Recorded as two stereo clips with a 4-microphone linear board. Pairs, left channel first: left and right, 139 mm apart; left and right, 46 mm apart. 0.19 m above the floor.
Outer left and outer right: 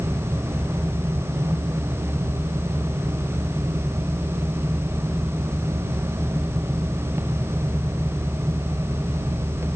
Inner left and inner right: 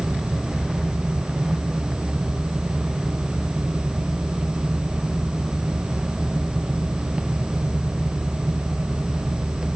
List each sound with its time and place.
Only background noise.